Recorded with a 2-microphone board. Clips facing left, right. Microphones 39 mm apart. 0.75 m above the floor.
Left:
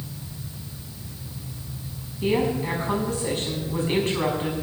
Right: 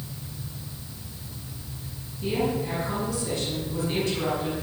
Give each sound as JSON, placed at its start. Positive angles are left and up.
{"t": 2.2, "sound": "a woman speaking", "side_deg": 45, "distance_m": 5.5}